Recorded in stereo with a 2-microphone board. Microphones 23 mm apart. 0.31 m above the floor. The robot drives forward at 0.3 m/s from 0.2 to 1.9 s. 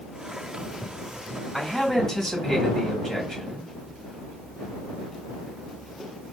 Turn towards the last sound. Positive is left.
turn(degrees=15)  # may be behind; listen again after turning